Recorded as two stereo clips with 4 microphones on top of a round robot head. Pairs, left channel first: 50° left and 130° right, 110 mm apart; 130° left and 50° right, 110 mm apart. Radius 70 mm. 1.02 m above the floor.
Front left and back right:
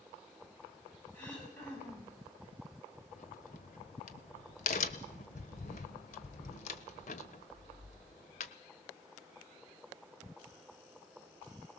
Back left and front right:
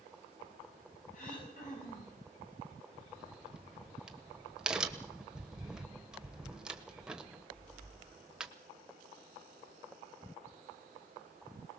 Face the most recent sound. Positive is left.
turn(degrees=35)